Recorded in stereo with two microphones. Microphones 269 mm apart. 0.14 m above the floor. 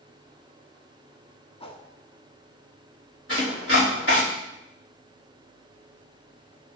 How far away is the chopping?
About 3.5 m.